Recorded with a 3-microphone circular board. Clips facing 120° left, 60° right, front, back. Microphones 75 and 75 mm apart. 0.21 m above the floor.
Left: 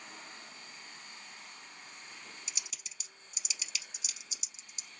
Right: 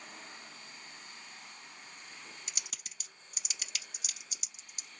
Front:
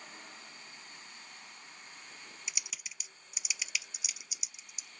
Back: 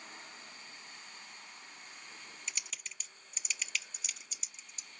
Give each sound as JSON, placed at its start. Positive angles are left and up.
{"t": 2.5, "sound": "typing on a keyboard", "azimuth_deg": -80, "distance_m": 0.7}